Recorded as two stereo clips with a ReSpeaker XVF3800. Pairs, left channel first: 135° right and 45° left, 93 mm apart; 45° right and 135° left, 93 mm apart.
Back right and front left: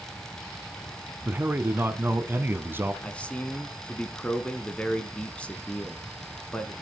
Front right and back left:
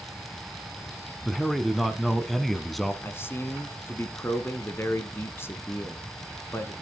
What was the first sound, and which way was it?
A man speaking, 40° left.